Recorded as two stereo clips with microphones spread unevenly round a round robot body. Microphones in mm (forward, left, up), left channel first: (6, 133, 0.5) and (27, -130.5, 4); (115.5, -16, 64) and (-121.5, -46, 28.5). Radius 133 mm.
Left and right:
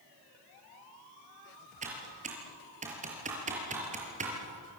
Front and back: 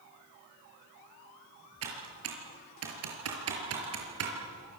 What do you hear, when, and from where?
1.8 s typing on a keyboard: 150° right, 5.5 m